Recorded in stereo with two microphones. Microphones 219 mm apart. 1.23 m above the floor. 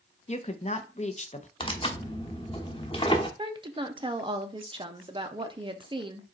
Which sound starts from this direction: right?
A woman speaking, at 3.4 s.